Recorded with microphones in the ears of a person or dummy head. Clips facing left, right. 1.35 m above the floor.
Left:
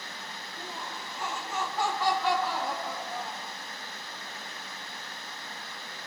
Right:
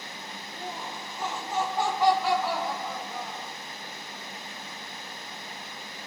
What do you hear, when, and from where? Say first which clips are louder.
0.6 s laughter: right 4 dB; 45° right (ahead or behind), 1.4 m; by 3.5 s 10° left (ahead or behind), 1.7 m